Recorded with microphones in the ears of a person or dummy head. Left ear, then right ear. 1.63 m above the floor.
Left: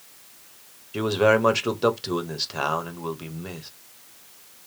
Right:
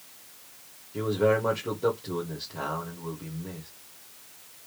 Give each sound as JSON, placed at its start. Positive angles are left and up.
{"t": 0.9, "sound": "a man speaking", "side_deg": 65, "distance_m": 1.1}